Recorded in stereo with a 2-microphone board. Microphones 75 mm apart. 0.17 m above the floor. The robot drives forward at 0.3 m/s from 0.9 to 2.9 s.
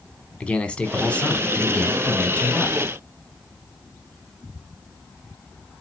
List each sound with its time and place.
0.4 s a man speaking: 15° left (ahead or behind), 1.0 m